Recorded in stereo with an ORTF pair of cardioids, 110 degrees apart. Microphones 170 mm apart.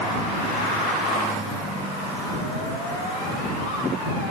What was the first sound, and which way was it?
Only background noise.